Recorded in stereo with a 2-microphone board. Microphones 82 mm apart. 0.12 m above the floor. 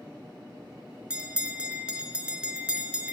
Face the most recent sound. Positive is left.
turn(degrees=-15)  # may be behind; listen again after turning